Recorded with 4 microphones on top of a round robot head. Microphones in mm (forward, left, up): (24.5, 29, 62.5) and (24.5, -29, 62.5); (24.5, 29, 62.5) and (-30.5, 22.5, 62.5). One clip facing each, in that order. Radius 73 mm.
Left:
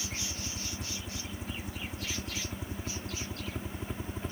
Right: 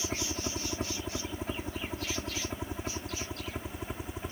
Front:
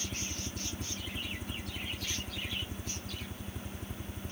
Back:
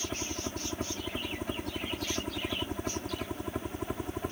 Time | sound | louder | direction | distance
0.0 | a helicopter | right 5 dB, back 5 dB | 125° right | ?